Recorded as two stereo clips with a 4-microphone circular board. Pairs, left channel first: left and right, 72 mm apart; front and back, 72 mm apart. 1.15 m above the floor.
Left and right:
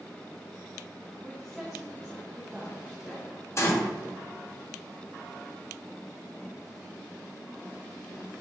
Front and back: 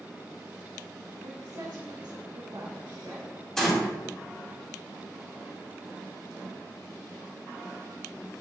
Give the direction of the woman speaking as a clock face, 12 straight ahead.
6 o'clock.